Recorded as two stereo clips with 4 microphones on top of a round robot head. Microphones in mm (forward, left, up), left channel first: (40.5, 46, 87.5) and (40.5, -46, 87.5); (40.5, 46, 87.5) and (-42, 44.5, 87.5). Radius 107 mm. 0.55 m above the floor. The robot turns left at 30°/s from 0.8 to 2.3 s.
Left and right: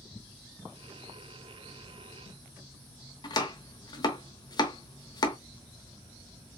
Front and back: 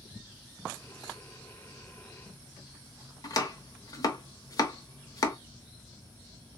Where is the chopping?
45° left, 1.0 m.